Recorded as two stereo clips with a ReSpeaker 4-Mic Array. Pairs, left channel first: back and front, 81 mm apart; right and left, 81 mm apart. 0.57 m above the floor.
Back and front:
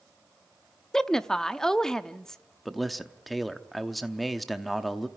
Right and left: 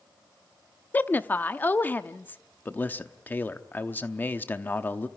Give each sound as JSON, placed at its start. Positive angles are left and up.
{"t": 0.9, "sound": "a woman speaking", "azimuth_deg": -105, "distance_m": 0.6}
{"t": 2.6, "sound": "a man speaking", "azimuth_deg": -90, "distance_m": 0.8}